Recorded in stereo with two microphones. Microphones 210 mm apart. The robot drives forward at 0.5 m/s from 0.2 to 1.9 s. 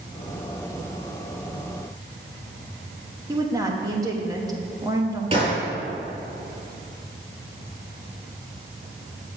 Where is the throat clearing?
No throat clearing in this recording.